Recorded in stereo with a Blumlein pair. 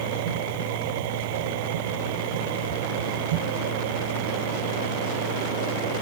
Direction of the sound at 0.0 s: 50° right.